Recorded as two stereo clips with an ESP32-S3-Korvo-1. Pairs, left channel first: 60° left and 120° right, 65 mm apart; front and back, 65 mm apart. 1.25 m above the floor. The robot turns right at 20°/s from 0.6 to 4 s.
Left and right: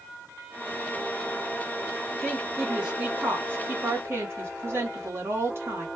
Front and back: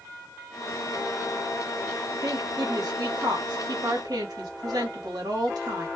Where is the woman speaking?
155° left, 1.3 m; by 5.9 s 170° right, 1.3 m.